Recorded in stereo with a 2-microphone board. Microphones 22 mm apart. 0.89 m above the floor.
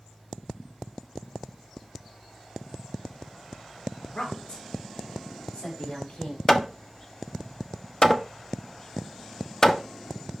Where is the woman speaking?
60° left (ahead or behind), 1.9 m.